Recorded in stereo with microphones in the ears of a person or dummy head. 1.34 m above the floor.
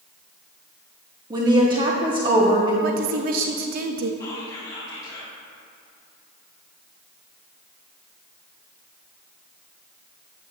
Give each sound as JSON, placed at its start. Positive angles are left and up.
{"t": 1.3, "sound": "a woman speaking", "side_deg": -20, "distance_m": 0.9}
{"t": 2.8, "sound": "a woman speaking", "side_deg": -50, "distance_m": 0.7}
{"t": 4.2, "sound": "whispering", "side_deg": 20, "distance_m": 1.5}